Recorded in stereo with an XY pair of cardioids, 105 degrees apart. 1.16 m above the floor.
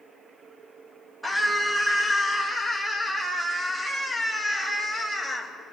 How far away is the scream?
About 5.5 m.